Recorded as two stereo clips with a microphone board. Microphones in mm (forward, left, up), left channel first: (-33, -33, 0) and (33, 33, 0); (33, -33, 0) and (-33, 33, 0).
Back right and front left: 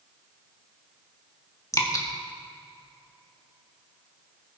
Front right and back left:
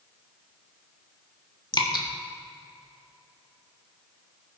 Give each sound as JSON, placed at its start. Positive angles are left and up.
{"t": 1.7, "sound": "dripping", "azimuth_deg": -85, "distance_m": 1.4}